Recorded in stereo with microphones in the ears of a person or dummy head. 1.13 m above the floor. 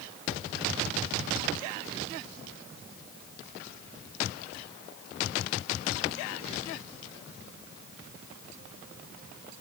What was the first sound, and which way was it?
Only background noise.